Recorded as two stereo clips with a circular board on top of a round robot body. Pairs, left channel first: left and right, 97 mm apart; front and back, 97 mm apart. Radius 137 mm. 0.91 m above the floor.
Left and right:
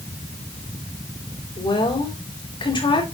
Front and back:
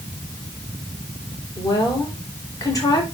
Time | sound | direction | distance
1.6 | a woman speaking | 55° left | 4.5 m